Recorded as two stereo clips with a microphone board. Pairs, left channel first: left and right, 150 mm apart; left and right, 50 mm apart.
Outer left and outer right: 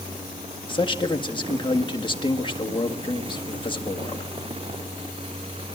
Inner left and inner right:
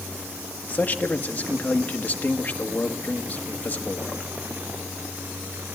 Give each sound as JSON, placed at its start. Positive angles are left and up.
{"t": 0.7, "sound": "a man speaking", "side_deg": 35, "distance_m": 1.7}